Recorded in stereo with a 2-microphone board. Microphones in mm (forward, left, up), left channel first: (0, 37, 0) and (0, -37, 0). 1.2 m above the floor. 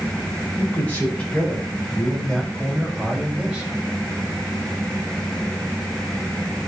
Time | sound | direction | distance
0.6 | a man speaking | 20° left (ahead or behind) | 6 m